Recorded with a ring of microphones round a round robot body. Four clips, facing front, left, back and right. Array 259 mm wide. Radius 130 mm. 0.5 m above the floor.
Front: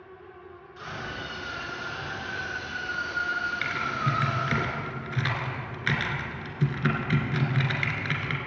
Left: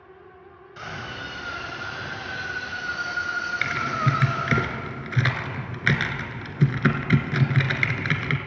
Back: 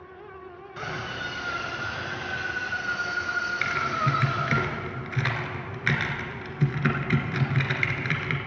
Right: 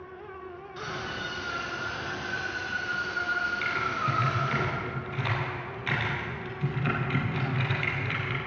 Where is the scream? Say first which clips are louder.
Left 1 dB, back 3 dB; 165° left, 3.5 m; by 4.6 s 120° left, 3.5 m.